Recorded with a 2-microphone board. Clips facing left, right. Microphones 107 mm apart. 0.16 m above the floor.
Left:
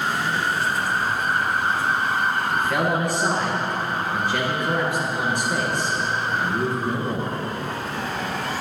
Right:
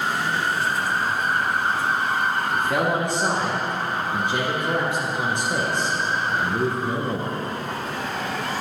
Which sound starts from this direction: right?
A man speaking, at 2.5 s.